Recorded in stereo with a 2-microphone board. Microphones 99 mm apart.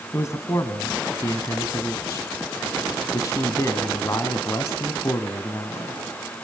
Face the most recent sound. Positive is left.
turn(degrees=35)  # may be behind; listen again after turning